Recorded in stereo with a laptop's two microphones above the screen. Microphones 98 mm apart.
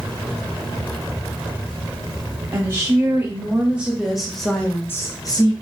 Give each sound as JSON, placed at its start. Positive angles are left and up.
{"t": 2.5, "sound": "a woman speaking", "side_deg": -30, "distance_m": 1.9}